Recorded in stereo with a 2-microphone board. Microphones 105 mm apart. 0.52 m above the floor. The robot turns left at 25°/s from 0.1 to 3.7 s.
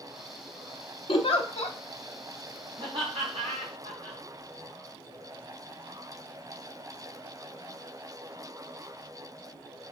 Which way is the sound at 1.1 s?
55° left (ahead or behind).